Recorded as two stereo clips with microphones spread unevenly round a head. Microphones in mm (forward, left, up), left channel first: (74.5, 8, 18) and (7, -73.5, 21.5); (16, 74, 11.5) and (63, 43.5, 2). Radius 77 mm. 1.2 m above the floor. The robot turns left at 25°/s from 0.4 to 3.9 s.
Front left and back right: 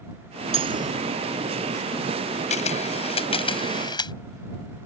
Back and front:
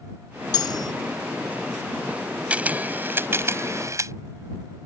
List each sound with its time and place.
0.5 s cutlery clinking: 175° left; by 0.9 s 165° left
2.5 s a camera shutter: 35° left; by 4.1 s straight ahead